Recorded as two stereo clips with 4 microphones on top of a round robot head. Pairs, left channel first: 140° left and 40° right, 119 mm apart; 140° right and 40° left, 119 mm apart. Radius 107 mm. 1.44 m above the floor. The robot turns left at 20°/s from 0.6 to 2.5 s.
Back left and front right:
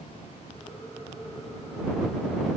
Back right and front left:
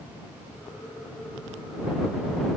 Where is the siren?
No siren in this recording.